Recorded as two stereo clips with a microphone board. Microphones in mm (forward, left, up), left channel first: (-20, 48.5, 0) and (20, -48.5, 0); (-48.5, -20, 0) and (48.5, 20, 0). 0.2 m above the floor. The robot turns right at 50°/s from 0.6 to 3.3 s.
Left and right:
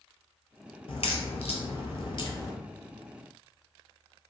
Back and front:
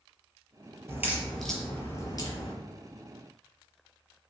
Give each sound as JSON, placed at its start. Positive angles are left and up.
{"t": 0.9, "sound": "a crack", "azimuth_deg": 85, "distance_m": 0.7}